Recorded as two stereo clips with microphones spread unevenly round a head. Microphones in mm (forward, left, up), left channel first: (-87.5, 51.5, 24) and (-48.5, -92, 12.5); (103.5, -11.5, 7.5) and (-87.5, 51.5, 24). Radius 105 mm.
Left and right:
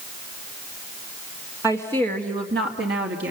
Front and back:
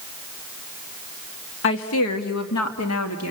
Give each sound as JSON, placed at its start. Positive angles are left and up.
{"t": 1.6, "sound": "a woman speaking", "azimuth_deg": 10, "distance_m": 2.0}